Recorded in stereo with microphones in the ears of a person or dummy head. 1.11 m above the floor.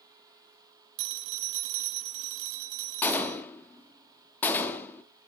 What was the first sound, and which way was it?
A phone ringing, 80° right.